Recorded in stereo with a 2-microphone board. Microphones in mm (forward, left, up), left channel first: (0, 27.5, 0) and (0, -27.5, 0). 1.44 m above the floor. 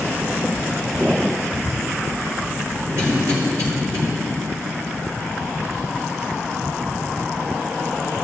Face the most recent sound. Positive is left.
turn(degrees=-70)  # may be behind; listen again after turning